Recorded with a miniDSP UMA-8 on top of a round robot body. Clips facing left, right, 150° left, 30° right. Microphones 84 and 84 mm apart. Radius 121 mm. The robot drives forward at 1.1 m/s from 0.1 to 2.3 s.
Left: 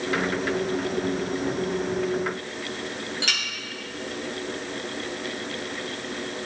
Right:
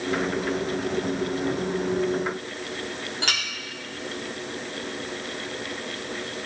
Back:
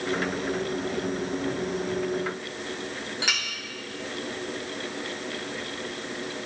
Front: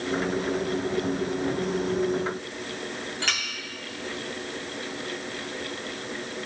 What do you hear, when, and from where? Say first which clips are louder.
3.2 s a clink: right 3 dB, even; 130° right, 1.8 m